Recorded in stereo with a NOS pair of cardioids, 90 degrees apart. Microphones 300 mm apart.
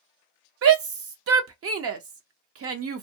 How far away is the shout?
About 0.8 m.